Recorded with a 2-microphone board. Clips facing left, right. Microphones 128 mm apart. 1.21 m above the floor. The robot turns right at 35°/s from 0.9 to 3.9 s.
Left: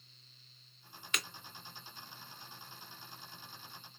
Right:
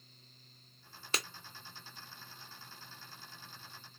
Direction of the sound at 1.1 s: 35° right (ahead or behind).